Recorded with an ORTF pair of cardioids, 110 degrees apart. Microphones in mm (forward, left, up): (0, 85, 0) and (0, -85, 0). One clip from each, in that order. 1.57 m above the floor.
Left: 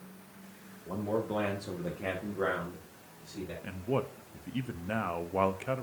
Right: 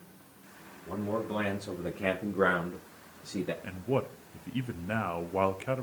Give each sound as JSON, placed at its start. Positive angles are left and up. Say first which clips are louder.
{"t": 0.9, "sound": "a man speaking", "louder": "left 1 dB", "azimuth_deg": 10, "distance_m": 2.0}
{"t": 3.6, "sound": "a man speaking", "louder": "left 2 dB", "azimuth_deg": -5, "distance_m": 0.8}